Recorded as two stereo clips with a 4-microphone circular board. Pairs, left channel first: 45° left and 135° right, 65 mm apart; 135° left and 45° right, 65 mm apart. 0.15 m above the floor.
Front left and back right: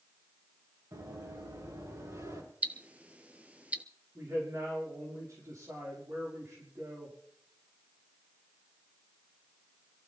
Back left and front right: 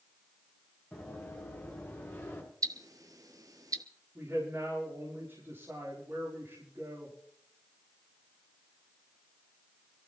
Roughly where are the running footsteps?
Behind right.